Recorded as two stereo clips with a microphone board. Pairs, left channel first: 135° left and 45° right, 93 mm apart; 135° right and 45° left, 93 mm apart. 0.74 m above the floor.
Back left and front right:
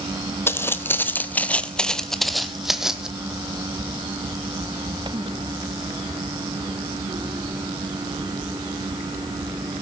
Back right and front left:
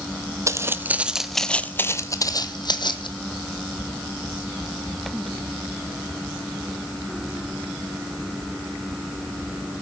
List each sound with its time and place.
0.5 s footsteps: 80° left, 0.9 m; by 3.1 s 125° right, 1.2 m